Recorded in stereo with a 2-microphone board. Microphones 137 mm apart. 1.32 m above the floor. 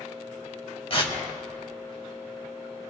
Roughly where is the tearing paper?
Left.